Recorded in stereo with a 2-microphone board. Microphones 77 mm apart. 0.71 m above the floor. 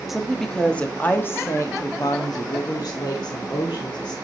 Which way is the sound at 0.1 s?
Centre (ahead or behind).